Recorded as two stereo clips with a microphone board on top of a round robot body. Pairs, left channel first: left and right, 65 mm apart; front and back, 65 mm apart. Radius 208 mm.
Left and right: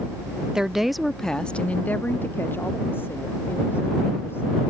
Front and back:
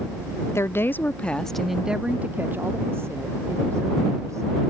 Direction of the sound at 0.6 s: 15° right.